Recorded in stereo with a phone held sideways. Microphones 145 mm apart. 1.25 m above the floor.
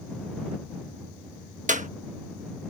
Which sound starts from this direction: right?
A clap, at 1.7 s.